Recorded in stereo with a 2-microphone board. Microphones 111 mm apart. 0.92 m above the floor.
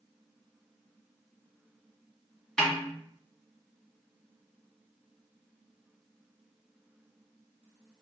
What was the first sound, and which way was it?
A snare drum, 5° left (ahead or behind).